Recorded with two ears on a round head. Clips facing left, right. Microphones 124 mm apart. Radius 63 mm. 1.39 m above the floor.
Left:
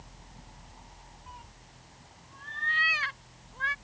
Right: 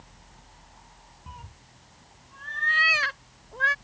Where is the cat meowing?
55° right (ahead or behind); by 3.8 s 65° right (ahead or behind).